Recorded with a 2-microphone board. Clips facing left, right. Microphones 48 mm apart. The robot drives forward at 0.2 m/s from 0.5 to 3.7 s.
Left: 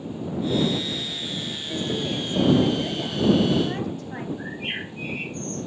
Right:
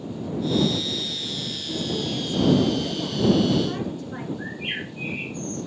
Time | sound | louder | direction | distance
1.7 | a woman speaking | even | 45° left (ahead or behind) | 2.5 m
4.4 | a bird | even | 70° left (ahead or behind) | 4 m